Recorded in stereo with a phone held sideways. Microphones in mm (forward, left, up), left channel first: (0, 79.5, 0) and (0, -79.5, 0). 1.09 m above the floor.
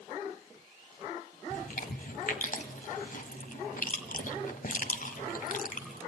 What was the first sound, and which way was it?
Chewing, 60° left (ahead or behind).